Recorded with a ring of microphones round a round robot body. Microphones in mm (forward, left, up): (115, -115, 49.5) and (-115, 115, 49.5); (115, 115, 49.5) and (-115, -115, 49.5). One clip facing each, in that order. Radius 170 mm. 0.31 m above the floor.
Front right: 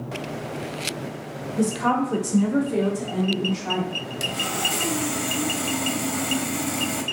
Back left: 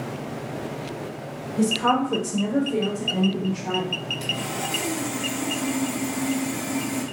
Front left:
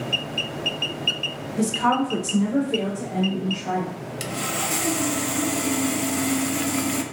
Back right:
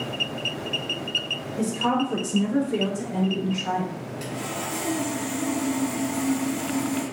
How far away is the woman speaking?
About 1.5 m.